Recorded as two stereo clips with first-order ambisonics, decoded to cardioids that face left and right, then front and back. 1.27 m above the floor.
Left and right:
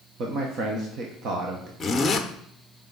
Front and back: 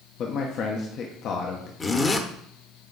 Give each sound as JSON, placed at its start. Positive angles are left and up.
{"t": 0.2, "sound": "a man speaking", "azimuth_deg": -45, "distance_m": 1.2}
{"t": 1.8, "sound": "a zipper", "azimuth_deg": 45, "distance_m": 0.9}